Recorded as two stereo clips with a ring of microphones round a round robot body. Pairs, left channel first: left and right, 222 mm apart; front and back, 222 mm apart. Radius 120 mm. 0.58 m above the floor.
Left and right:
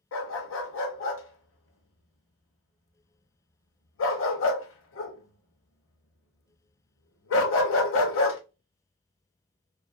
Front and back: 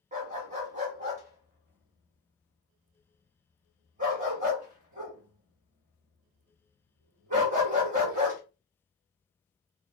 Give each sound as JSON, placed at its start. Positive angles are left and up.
{"t": 0.1, "sound": "a dog barking", "azimuth_deg": 120, "distance_m": 0.8}